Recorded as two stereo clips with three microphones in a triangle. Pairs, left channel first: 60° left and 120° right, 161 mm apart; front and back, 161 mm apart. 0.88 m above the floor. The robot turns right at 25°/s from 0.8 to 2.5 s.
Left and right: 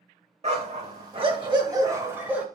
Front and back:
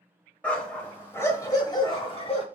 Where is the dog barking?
80° right, 1.0 m; by 2.5 s 40° right, 1.0 m.